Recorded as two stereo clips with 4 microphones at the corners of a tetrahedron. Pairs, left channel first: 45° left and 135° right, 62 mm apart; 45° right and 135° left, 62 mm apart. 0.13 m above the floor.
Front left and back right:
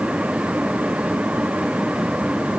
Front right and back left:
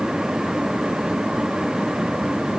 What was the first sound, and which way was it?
Only background noise.